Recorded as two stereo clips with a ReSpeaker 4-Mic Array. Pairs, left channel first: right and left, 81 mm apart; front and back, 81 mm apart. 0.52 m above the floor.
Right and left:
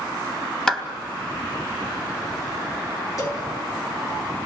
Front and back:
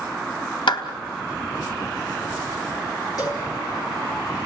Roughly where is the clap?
Ahead.